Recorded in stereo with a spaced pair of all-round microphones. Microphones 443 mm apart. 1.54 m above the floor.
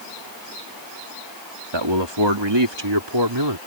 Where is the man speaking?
75° right (ahead or behind); by 3.6 s 65° right (ahead or behind).